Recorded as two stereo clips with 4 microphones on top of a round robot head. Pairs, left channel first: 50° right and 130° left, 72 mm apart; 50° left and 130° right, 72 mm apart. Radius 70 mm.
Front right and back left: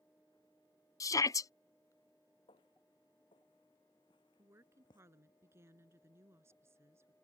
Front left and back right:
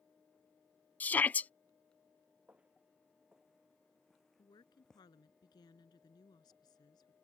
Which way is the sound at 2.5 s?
55° right.